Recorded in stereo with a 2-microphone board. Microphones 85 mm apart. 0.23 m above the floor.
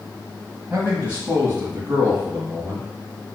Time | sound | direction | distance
0.7 | a man speaking | 25° right (ahead or behind) | 1.3 m